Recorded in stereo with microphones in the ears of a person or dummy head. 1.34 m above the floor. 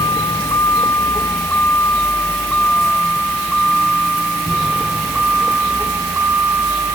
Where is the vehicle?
20° left (ahead or behind); by 7.0 s 15° right (ahead or behind).